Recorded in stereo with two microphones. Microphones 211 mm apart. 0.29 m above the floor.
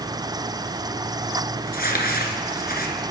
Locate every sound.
1.7 s crumpling: 45° left (ahead or behind), 2 m